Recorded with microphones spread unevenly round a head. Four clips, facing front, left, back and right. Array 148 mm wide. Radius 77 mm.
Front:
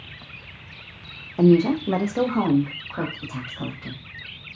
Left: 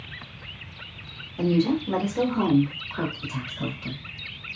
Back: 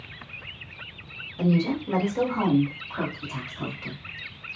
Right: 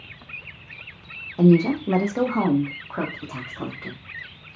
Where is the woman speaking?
20° right, 0.6 m; by 4.0 s 70° right, 1.8 m.